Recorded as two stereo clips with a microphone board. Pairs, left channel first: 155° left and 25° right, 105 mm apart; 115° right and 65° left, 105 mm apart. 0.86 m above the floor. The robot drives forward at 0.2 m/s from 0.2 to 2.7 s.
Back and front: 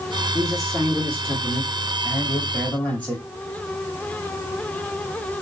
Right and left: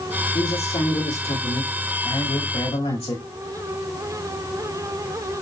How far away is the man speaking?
About 2 m.